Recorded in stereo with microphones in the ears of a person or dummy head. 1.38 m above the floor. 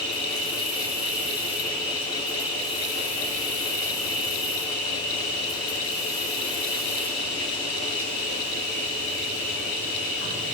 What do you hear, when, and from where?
0.0 s an insect: 65° left (ahead or behind), 4.5 m